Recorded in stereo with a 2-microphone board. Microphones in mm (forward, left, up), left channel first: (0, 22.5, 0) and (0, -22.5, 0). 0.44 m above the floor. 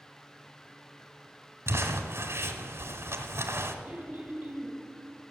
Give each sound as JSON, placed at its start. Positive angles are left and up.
{"t": 1.7, "sound": "crumpling", "side_deg": -80, "distance_m": 1.2}
{"t": 3.9, "sound": "throat clearing", "side_deg": -35, "distance_m": 3.0}